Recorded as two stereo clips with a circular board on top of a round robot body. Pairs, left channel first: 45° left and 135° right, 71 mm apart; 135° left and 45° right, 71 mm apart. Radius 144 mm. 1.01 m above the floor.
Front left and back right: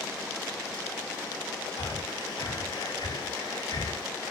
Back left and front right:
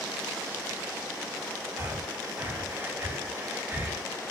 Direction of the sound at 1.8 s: 20° left.